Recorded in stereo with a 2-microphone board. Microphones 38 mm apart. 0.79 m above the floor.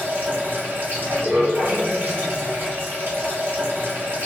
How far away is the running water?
About 1.7 m.